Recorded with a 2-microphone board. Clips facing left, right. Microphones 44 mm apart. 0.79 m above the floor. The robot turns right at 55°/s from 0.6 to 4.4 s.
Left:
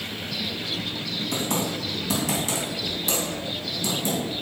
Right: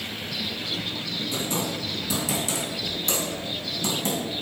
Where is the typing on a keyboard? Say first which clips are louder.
Left 3 dB; 80° left, 3.5 m; by 4.4 s 70° right (ahead or behind), 3.5 m.